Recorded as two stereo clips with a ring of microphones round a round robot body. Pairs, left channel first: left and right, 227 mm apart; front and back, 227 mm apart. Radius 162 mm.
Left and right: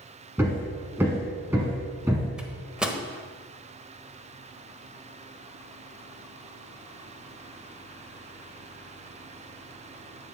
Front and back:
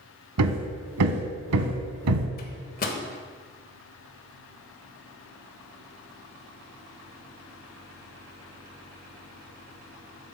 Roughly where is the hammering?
Behind.